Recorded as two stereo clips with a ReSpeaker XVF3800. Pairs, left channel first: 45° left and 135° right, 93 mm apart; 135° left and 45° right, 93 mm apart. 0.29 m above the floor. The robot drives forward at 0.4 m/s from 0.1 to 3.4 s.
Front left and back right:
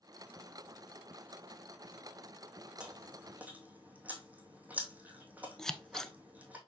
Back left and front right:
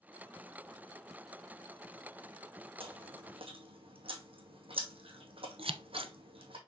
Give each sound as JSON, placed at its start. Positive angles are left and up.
{"t": 2.8, "sound": "chewing", "azimuth_deg": -55, "distance_m": 2.5}
{"t": 5.6, "sound": "scissors", "azimuth_deg": -40, "distance_m": 0.8}